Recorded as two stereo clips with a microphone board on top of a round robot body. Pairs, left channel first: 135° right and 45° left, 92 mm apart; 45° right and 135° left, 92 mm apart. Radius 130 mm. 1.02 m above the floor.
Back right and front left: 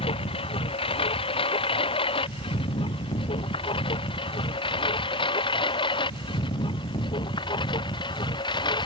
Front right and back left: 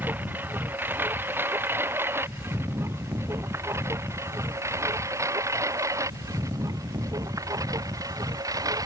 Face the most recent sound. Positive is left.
turn(degrees=-175)